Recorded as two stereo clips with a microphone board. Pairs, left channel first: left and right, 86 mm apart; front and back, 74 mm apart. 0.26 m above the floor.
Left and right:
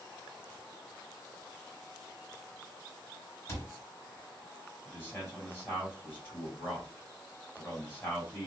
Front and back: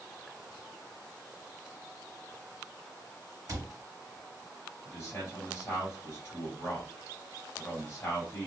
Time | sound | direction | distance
3.5 | a cupboard door | 140° left | 1.3 m
4.8 | a man speaking | 35° left | 2 m